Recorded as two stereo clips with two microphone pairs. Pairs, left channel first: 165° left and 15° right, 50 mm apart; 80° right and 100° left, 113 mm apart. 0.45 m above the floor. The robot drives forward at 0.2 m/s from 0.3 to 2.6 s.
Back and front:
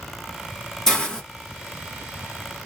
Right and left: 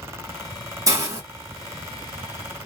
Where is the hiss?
95° left, 0.9 m; by 1.2 s 105° left, 0.9 m.